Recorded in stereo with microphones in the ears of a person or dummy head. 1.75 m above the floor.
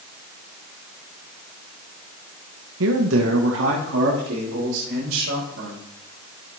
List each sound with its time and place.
2.8 s a man speaking: 80° right, 0.7 m; by 5.8 s 85° right, 3 m